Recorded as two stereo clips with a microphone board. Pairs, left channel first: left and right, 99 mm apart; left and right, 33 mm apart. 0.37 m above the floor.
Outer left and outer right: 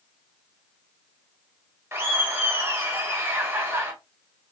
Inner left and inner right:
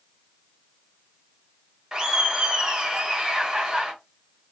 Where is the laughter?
25° right (ahead or behind), 1.4 m.